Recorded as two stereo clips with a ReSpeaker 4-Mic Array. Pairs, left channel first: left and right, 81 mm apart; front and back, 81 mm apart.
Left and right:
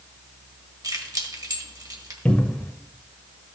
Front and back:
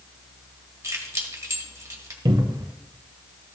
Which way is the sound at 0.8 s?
130° right.